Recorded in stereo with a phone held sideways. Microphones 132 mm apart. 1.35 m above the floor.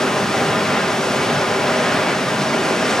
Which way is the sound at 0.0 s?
5° left (ahead or behind).